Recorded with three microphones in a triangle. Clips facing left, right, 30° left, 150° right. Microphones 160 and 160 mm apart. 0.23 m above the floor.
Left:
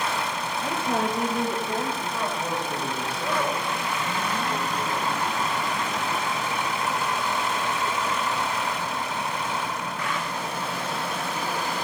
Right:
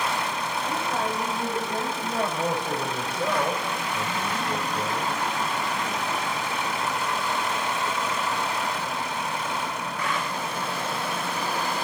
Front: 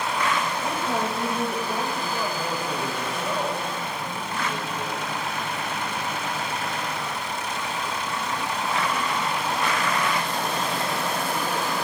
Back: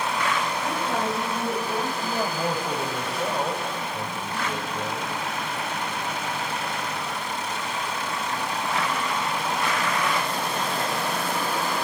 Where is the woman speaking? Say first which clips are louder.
Left 3 dB, even; 115° left, 5.5 m.